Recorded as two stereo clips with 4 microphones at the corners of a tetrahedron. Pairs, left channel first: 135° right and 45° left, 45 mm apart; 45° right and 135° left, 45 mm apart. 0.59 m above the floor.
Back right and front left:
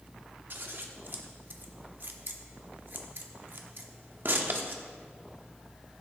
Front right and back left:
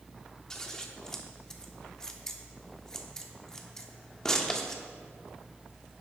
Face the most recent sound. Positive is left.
turn(degrees=25)